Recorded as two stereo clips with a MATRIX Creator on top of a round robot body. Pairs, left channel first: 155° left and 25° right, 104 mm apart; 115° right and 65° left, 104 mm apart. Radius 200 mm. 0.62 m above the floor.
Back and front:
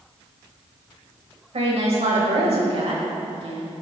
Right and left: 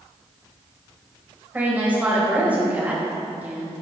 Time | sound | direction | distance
1.5 | a woman speaking | 5° right | 4.5 m